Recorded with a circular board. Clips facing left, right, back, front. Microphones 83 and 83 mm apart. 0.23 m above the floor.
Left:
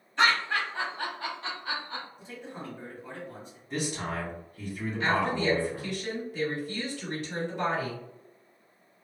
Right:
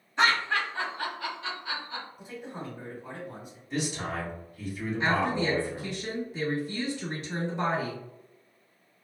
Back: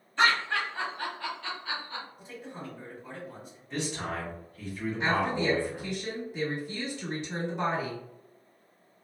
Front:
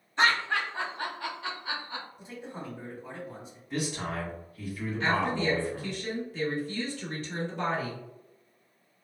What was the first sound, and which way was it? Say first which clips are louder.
Laughter: even, even; 35° right.